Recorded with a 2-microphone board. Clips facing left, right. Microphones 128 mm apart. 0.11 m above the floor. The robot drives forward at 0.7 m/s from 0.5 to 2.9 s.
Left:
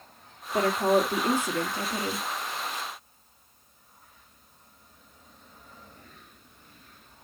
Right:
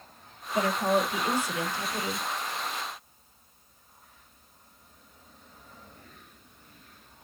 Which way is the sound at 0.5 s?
50° left (ahead or behind).